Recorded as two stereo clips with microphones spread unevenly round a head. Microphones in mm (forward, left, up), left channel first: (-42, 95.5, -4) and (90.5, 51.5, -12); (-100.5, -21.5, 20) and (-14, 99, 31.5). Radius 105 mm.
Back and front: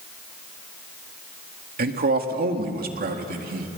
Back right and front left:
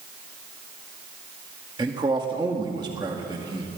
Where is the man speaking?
15° right, 2 m.